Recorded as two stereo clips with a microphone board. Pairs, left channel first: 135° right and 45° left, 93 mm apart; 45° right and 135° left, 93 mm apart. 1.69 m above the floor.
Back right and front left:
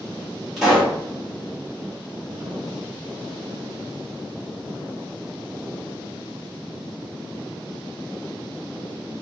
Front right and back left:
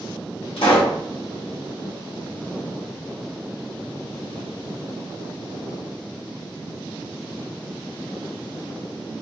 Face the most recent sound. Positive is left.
turn(degrees=-45)